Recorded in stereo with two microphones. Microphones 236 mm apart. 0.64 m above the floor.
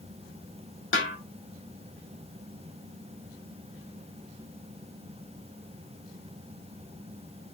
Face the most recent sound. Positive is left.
turn(degrees=60)  # may be behind; listen again after turning